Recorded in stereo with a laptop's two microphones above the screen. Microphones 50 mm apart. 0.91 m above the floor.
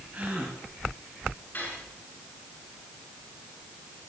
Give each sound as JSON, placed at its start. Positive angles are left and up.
{"t": 0.1, "sound": "a gasp", "side_deg": -30, "distance_m": 3.0}
{"t": 1.5, "sound": "cutlery clinking", "side_deg": 40, "distance_m": 7.5}